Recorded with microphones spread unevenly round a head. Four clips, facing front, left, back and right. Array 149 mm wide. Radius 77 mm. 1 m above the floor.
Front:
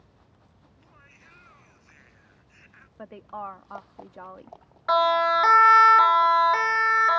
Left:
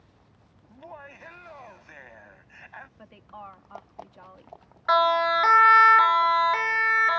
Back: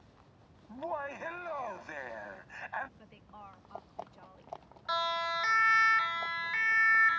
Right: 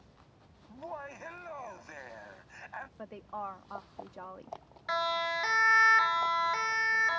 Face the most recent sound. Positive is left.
turn(degrees=20)